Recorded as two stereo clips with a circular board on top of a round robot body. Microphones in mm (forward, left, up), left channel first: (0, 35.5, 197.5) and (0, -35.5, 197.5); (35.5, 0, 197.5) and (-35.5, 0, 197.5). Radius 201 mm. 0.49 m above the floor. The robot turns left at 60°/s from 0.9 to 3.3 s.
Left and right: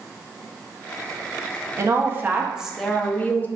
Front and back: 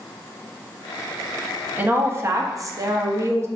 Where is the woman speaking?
120° right, 0.8 m; by 3.5 s 150° left, 0.8 m.